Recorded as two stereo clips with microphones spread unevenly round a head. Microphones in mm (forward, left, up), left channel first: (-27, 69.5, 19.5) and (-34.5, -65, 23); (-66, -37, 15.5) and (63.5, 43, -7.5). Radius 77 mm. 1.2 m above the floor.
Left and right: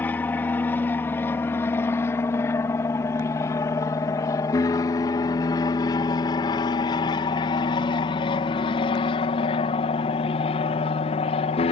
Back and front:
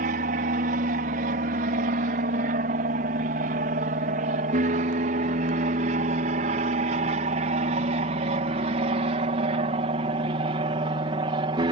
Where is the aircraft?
10° left; by 11.7 s 75° left.